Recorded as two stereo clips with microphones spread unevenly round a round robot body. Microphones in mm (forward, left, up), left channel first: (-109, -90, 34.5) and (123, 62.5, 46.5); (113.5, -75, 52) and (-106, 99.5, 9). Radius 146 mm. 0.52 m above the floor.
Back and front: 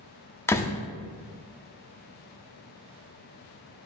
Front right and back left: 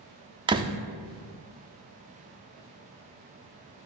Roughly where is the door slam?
Behind left.